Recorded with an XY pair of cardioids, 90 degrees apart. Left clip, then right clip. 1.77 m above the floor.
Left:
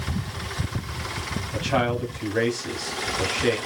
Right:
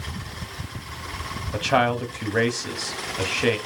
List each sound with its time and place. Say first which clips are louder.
1.5 s a man speaking: right 4 dB; 50° right, 1.0 m